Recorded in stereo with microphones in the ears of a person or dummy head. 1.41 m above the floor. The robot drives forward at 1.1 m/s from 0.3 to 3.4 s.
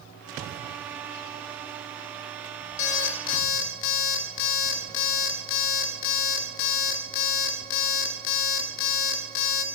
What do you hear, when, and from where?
2.8 s an alarm clock: 40° left (ahead or behind), 1.6 m; by 9.7 s 50° left (ahead or behind), 1.4 m